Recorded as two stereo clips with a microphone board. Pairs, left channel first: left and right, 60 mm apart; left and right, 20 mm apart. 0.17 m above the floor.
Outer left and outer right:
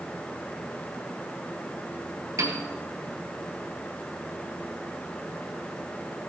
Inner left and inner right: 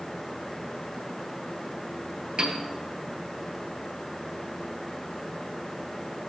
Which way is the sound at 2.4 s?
65° right (ahead or behind).